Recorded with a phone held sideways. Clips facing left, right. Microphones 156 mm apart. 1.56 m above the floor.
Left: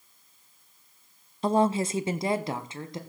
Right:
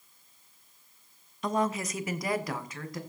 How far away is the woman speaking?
About 0.5 m.